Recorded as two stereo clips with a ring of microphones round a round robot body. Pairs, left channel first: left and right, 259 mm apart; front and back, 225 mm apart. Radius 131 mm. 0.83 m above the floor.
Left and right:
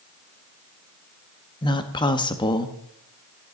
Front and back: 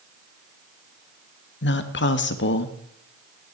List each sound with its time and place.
1.6 s a woman speaking: 20° left, 1.5 m